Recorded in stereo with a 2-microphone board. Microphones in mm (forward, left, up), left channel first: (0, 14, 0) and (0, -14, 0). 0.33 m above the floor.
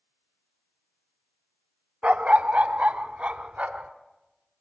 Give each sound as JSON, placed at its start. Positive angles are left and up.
{"t": 2.0, "sound": "a dog barking", "side_deg": -55, "distance_m": 0.5}